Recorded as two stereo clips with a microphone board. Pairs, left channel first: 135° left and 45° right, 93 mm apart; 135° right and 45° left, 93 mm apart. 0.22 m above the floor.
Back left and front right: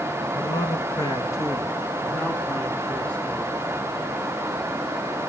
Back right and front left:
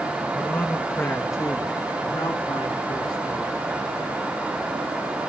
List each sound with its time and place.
0.3 s a man speaking: 155° left, 2 m; by 3.5 s 145° right, 3 m